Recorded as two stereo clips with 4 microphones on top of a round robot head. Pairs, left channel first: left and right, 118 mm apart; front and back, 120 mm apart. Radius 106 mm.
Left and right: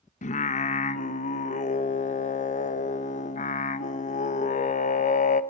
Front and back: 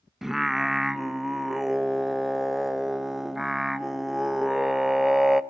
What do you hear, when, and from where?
0.2 s singing: 95° left, 0.8 m